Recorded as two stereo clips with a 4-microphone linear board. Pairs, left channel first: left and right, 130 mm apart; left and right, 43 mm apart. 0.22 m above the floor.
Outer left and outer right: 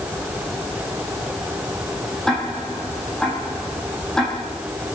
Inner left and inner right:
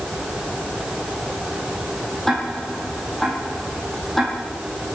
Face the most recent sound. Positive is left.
turn(degrees=5)  # may be behind; listen again after turning